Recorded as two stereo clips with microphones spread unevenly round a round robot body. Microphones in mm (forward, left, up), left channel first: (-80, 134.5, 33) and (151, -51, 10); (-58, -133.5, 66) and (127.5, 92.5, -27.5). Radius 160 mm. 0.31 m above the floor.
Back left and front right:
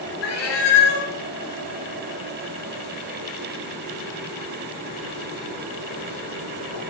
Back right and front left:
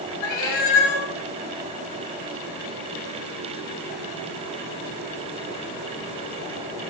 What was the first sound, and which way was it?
A cat meowing, 165° right.